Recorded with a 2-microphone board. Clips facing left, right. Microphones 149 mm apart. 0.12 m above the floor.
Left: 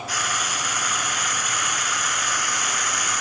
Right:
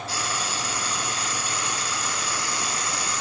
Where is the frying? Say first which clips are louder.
Left 1 dB; 30° right (ahead or behind), 1.7 m.